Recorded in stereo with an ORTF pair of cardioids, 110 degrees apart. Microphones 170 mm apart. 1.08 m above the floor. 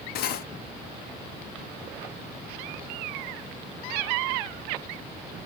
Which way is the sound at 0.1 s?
70° left.